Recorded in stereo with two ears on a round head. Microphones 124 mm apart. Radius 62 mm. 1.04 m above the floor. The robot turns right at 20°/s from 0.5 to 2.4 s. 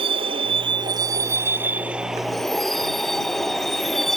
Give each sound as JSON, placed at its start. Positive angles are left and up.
{"t": 0.0, "sound": "a vehicle", "azimuth_deg": -35}